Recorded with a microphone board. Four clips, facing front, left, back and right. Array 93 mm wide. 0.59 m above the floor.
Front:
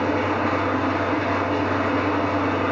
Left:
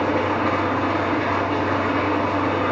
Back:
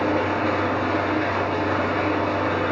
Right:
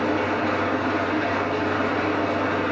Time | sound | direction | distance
0.0 | an engine running | 70° left | 1.7 m